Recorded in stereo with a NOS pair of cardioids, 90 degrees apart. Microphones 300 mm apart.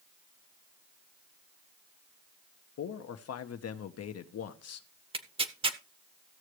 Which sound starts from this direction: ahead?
Tearing paper, at 5.1 s.